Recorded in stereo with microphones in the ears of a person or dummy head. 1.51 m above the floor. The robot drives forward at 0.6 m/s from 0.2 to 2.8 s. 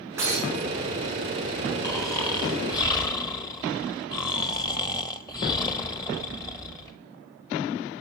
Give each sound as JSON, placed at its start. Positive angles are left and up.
{"t": 0.2, "sound": "breaking glass", "side_deg": -15, "distance_m": 6.5}
{"t": 1.8, "sound": "snoring", "side_deg": 15, "distance_m": 1.8}